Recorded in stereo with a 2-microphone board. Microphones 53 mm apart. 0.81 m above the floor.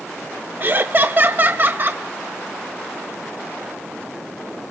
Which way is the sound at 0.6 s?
40° right (ahead or behind).